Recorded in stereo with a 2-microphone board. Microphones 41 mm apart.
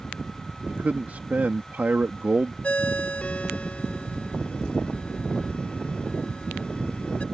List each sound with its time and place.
0.7 s a man speaking: 40° right (ahead or behind)
2.6 s a ringtone: 30° left (ahead or behind)